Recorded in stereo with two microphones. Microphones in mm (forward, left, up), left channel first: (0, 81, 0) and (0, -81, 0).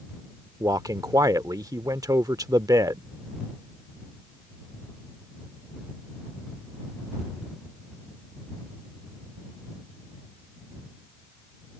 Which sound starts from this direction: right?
A man speaking, at 0.6 s.